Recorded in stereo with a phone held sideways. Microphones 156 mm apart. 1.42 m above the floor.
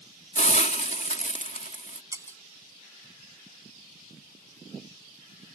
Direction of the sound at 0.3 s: 50° left (ahead or behind).